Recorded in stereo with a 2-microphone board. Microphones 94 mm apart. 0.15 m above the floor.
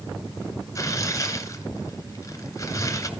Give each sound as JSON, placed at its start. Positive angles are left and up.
{"t": 0.8, "sound": "tearing paper", "side_deg": 35, "distance_m": 2.0}